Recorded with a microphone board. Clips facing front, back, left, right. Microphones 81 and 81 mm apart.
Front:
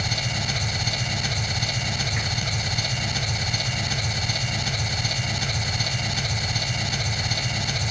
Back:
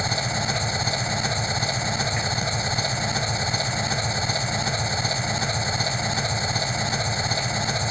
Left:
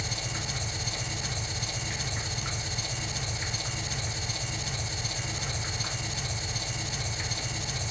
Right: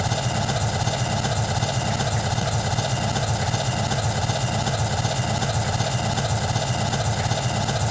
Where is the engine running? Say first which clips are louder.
Back 4 dB, right 12 dB; 115° right, 1.2 m.